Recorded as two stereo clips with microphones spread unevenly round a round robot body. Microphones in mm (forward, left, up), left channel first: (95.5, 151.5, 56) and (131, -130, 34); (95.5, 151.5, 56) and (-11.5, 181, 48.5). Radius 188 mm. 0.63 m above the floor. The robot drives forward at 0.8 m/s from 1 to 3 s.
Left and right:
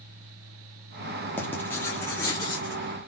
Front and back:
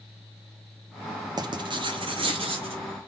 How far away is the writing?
About 1.1 m.